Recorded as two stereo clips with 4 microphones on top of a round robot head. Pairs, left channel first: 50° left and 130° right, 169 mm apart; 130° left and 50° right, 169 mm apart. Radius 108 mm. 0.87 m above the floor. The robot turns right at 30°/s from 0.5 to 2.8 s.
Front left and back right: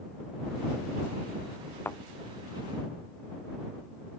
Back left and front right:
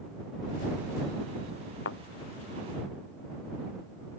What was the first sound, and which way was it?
A thud, 125° left.